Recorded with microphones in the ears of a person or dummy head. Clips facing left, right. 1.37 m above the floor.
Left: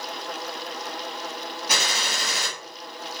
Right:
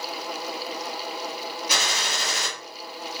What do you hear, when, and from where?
1.7 s a gunshot: 40° left (ahead or behind), 0.9 m